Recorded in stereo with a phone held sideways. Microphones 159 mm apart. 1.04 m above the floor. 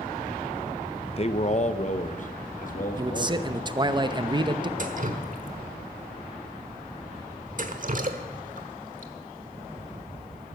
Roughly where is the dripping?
Right.